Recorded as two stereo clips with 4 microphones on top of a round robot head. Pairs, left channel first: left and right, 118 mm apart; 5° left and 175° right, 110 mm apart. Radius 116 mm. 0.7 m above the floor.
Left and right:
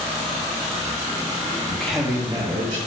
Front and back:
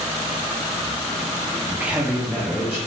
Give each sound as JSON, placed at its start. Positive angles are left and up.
{"t": 1.7, "sound": "a man speaking", "azimuth_deg": 140, "distance_m": 0.6}